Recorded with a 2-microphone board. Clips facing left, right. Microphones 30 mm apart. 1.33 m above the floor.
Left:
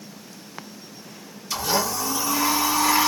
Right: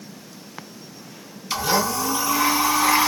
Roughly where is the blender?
Right.